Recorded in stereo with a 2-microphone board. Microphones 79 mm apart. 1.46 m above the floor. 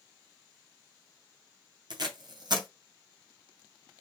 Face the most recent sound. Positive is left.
turn(degrees=-60)  # may be behind; listen again after turning